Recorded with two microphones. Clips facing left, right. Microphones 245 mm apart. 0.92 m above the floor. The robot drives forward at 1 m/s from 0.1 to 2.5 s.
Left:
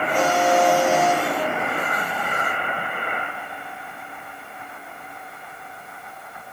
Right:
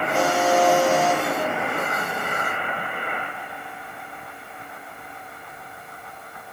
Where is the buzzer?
10° right (ahead or behind), 9 m.